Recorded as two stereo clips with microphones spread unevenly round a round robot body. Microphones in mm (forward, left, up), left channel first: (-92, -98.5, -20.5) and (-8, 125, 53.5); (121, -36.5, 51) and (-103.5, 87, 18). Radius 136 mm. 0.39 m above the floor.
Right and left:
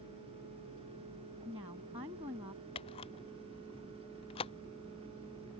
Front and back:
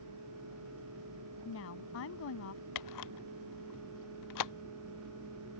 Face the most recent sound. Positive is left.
turn(degrees=-40)